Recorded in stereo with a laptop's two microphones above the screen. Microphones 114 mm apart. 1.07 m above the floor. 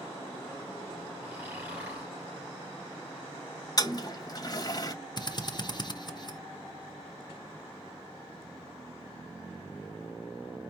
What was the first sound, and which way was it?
Snoring, 20° right (ahead or behind).